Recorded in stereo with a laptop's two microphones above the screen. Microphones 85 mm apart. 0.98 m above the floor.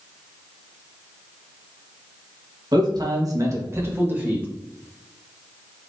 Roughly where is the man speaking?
Right.